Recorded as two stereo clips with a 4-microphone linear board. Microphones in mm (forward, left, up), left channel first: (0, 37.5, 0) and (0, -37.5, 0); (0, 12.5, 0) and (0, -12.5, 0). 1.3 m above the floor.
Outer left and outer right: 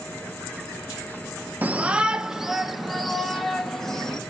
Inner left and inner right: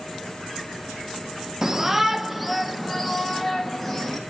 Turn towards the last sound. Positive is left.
turn(degrees=5)  # may be behind; listen again after turning